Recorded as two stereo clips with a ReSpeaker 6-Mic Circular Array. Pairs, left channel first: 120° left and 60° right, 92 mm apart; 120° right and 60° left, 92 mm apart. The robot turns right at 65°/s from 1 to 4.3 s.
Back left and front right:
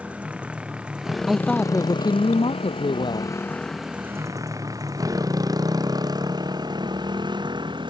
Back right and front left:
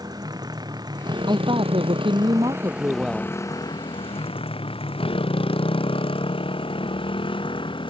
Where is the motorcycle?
15° left; by 7.9 s 95° right.